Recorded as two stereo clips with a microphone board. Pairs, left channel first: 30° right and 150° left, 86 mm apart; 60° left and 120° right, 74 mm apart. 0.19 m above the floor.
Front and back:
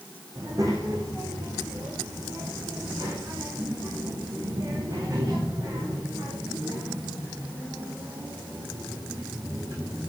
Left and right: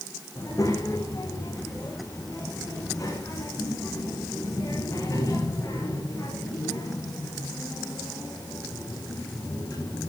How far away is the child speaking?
About 9 m.